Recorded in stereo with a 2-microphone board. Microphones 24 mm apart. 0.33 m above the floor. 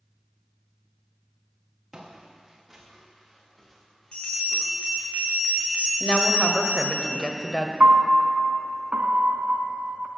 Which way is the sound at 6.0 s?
35° left (ahead or behind).